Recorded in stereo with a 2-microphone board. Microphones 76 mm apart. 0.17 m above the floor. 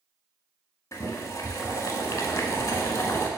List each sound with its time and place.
0.9 s boiling: 40° left (ahead or behind), 0.6 m